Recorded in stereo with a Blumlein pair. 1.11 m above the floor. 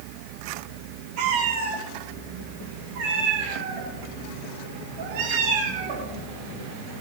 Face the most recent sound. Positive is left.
turn(degrees=-45)